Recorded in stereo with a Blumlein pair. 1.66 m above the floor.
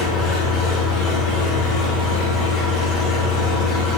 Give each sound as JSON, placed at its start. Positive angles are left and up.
{"t": 0.0, "sound": "an engine running", "azimuth_deg": 35, "distance_m": 5.0}